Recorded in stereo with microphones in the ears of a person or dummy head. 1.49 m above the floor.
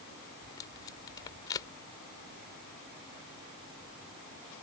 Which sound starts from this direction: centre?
Tape being pulled, at 0.4 s.